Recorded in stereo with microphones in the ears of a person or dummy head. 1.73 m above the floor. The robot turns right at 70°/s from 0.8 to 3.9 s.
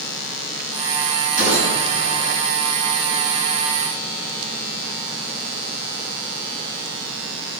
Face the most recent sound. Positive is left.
turn(degrees=40)